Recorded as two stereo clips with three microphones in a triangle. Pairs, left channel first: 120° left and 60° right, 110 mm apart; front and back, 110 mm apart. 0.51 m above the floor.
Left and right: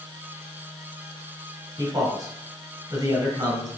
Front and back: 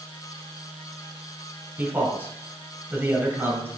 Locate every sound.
1.8 s a man speaking: 110° right, 3 m